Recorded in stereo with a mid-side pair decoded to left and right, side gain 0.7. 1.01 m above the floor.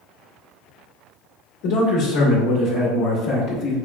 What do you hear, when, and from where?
1.6 s a man speaking: 65° left, 1.3 m